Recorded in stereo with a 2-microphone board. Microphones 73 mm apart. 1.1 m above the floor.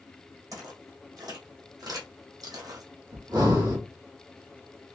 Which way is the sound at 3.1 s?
75° right (ahead or behind).